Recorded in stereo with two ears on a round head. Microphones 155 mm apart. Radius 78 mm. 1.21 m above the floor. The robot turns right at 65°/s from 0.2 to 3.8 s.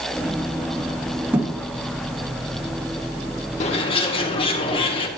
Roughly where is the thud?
Centre.